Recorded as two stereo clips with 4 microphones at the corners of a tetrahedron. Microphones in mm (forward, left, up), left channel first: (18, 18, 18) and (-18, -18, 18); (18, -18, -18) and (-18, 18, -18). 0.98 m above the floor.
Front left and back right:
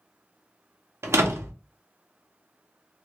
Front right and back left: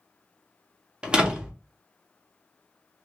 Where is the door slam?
155° right, 0.6 m.